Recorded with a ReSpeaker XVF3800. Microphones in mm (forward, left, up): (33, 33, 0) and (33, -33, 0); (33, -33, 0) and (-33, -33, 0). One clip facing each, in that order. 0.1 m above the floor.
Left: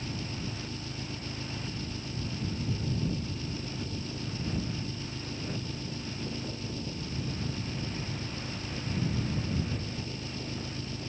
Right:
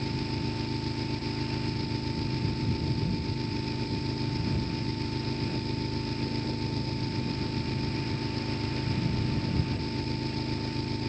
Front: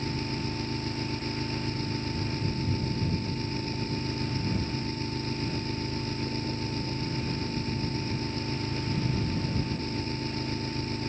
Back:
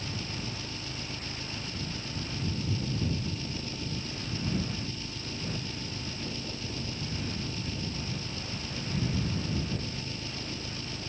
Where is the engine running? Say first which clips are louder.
Right 6 dB, front 6 dB; 50° right.